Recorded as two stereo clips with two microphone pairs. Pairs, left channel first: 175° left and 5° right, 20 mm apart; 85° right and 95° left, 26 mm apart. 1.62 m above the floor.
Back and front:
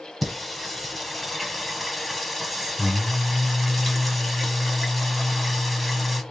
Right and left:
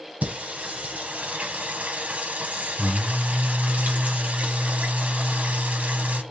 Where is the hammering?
I don't hear hammering.